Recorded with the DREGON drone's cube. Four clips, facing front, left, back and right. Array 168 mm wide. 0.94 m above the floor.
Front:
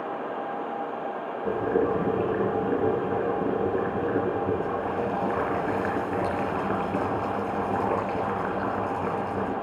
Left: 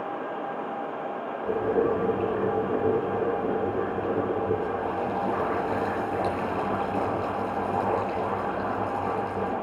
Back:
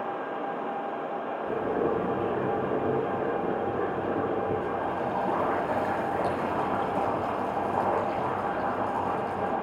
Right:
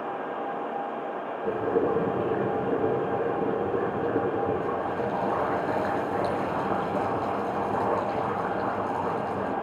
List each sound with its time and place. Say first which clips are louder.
1.4 s boiling: left 1 dB, front 4 dB; 30° right, 6 m